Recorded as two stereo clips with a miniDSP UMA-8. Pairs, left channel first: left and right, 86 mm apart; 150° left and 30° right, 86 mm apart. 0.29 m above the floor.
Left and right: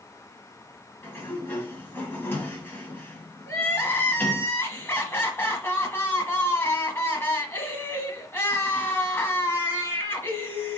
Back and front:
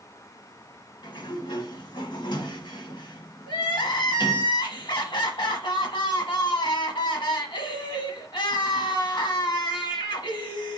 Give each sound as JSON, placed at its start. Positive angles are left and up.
{"t": 1.0, "sound": "a sliding door", "azimuth_deg": 155, "distance_m": 1.3}
{"t": 3.5, "sound": "crying", "azimuth_deg": 150, "distance_m": 1.2}